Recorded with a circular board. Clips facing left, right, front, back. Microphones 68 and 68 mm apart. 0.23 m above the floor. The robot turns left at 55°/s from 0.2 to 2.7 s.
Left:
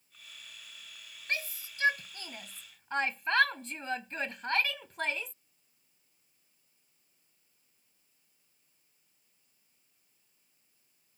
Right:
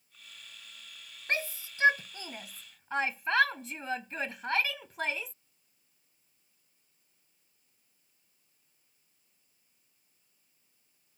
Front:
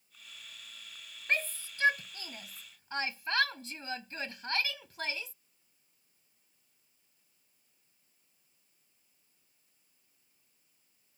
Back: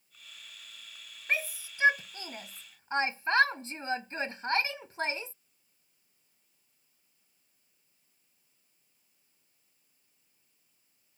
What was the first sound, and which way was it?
A shout, 100° right.